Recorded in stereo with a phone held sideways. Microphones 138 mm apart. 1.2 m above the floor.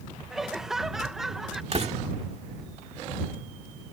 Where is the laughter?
5° right (ahead or behind).